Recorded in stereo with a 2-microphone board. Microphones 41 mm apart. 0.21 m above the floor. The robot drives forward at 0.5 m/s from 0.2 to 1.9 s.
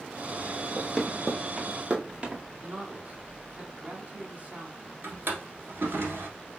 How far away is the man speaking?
About 1.6 m.